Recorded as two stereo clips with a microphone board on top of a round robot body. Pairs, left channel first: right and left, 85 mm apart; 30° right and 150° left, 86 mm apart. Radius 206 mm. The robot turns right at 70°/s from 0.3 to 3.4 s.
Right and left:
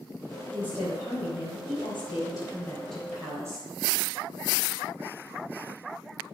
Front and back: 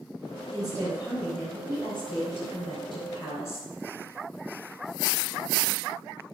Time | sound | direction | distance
0.5 | a woman speaking | 170° right | 4 m